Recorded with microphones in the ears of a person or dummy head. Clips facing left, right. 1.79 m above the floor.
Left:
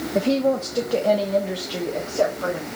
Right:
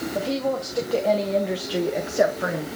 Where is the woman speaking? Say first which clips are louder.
Left 6 dB; 35° left (ahead or behind), 1.1 m; by 2.7 s 35° right (ahead or behind), 1.3 m.